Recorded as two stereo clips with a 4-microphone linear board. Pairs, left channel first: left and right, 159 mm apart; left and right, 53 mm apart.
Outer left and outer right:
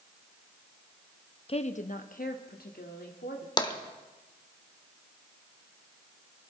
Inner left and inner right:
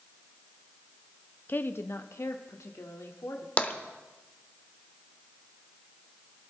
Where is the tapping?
30° left (ahead or behind), 1.0 m.